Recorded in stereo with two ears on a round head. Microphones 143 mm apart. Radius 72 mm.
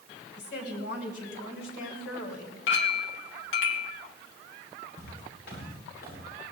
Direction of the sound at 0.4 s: 75° left (ahead or behind).